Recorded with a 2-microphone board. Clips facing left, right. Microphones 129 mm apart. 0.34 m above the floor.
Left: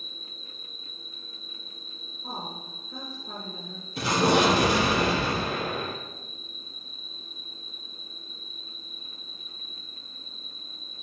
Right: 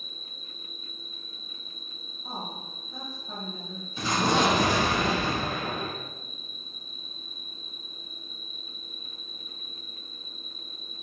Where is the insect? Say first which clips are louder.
Left 1 dB; 65° left (ahead or behind), 4 m.